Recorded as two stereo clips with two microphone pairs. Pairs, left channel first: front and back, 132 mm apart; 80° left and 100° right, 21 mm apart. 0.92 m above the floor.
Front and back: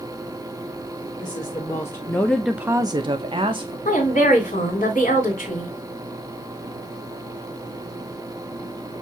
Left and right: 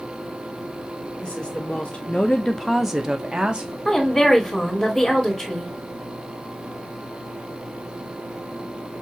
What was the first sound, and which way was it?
A woman speaking, 60° left.